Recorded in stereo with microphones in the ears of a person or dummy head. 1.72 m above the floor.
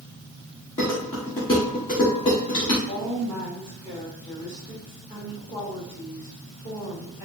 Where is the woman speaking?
25° left (ahead or behind), 1.3 m.